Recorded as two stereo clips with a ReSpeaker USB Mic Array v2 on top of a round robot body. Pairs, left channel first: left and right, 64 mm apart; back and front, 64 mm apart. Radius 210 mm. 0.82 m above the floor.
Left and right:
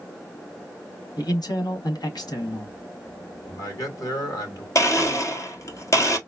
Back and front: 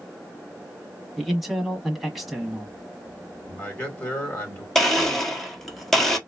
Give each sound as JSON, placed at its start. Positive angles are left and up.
{"t": 1.2, "sound": "a man speaking", "azimuth_deg": 90, "distance_m": 1.5}
{"t": 3.5, "sound": "a man speaking", "azimuth_deg": 115, "distance_m": 2.5}
{"t": 4.8, "sound": "a blender", "azimuth_deg": 95, "distance_m": 1.3}